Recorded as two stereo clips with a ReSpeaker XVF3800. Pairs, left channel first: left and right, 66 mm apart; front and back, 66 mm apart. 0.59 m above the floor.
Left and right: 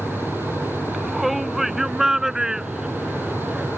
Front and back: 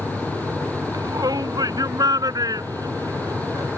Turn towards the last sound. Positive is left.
turn(degrees=-165)